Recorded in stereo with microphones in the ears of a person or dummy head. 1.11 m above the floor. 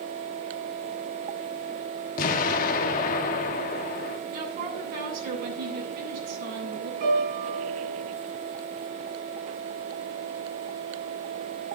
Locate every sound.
2.2 s an explosion: 45° left (ahead or behind), 1.5 m
4.3 s a woman speaking: 50° right (ahead or behind), 8.5 m
7.0 s a piano: 50° right (ahead or behind), 4.5 m